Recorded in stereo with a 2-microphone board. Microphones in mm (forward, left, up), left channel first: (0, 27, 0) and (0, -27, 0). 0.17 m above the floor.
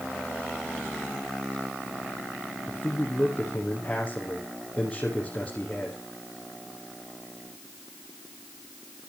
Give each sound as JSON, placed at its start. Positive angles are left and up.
{"t": 2.7, "sound": "a man speaking", "side_deg": 20, "distance_m": 5.0}